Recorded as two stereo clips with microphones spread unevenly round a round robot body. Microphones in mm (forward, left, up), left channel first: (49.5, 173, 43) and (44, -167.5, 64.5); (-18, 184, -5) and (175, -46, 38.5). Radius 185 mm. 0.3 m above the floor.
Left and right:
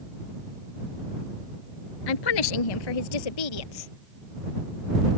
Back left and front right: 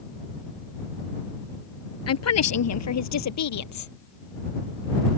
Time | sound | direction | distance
2.1 | a woman speaking | 95° left | ?